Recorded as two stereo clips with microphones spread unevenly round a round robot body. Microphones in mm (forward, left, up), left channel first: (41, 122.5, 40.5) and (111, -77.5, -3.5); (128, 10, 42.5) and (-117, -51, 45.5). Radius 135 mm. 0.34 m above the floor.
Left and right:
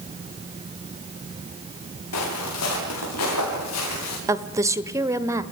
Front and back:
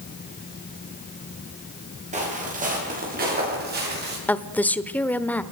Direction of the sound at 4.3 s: 60° right.